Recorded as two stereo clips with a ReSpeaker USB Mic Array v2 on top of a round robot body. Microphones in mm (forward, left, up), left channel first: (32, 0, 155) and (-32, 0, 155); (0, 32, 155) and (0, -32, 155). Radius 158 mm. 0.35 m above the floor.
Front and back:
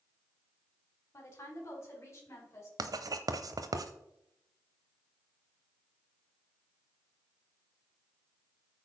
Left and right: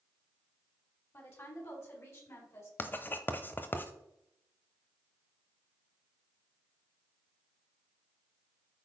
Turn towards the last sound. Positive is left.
turn(degrees=150)